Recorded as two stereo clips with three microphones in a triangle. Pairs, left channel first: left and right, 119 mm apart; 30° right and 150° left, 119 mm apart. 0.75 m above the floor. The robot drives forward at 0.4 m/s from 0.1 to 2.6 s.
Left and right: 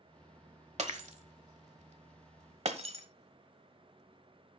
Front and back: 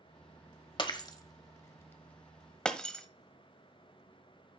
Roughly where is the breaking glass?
Right.